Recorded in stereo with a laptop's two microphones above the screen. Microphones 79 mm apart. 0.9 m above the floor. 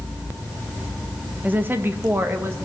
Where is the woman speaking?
20° right (ahead or behind), 0.8 m; by 2.6 s 35° right (ahead or behind), 1.3 m.